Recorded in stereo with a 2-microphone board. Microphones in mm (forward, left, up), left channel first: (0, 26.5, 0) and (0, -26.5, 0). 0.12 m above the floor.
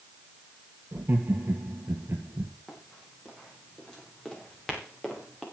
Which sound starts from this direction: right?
Laughter, at 0.9 s.